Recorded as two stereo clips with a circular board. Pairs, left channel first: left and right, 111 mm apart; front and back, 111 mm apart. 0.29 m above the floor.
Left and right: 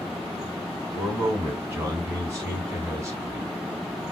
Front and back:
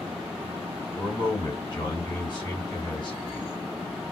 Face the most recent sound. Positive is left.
turn(degrees=-35)